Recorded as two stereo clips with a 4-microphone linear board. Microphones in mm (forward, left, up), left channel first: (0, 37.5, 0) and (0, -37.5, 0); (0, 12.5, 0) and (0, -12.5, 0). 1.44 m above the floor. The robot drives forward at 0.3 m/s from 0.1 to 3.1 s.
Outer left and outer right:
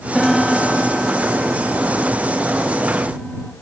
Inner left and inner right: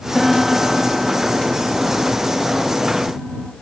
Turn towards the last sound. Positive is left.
turn(degrees=0)  # may be behind; listen again after turning